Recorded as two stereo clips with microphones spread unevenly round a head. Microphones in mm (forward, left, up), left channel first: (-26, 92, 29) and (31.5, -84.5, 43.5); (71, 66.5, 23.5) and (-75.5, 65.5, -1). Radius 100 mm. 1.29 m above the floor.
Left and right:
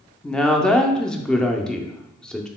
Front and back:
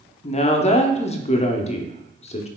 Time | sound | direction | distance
0.2 | a woman speaking | 30° left | 0.5 m